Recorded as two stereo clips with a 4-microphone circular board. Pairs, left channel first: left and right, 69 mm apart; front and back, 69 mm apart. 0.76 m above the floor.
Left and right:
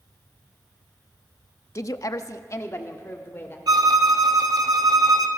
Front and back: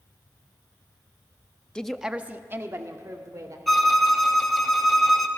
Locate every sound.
1.8 s a woman speaking: 75° left, 0.9 m; by 3.6 s 145° left, 2.5 m
3.7 s a violin: 90° right, 1.4 m